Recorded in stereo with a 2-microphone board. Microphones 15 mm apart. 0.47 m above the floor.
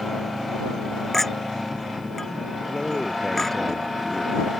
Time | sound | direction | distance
1.1 | a clink | 20° left (ahead or behind) | ?
2.7 | a man speaking | 10° left (ahead or behind) | ?